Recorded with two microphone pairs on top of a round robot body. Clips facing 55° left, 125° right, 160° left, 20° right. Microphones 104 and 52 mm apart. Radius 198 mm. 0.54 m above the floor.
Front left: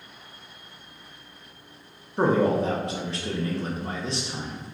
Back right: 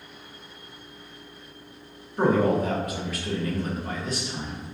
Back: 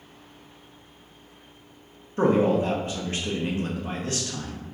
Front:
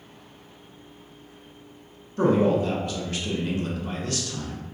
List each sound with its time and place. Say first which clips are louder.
2.2 s a man speaking: even, even; 110° left, 0.8 m